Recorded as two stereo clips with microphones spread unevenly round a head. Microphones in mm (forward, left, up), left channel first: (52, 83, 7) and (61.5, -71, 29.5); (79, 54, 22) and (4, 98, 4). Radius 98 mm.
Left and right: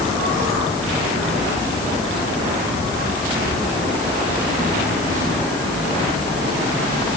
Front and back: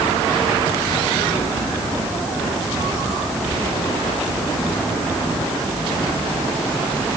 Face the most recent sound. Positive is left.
No sound to turn to.